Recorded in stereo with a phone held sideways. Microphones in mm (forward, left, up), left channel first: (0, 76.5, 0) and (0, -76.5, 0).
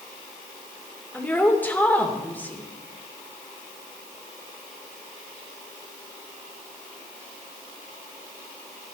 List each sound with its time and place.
1.1 s a woman speaking: 10° left (ahead or behind), 2.5 m